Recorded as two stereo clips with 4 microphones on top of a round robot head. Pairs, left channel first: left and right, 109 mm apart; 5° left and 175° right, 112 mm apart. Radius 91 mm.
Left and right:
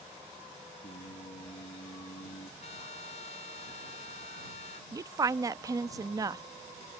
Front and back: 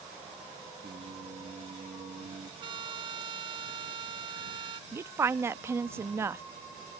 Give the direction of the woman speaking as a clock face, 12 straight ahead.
4 o'clock.